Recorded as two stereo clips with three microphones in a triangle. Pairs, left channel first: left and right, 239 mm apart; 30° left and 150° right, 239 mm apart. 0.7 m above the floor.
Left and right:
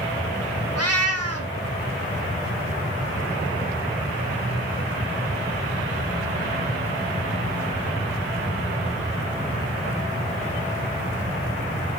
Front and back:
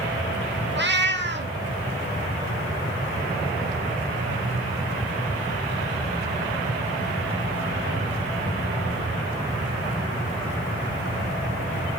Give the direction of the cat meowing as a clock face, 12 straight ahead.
3 o'clock.